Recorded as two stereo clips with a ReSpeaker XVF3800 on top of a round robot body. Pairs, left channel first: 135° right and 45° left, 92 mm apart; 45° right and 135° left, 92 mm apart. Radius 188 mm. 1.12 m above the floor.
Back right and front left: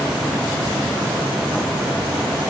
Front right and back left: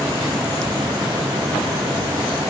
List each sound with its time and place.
Only background noise.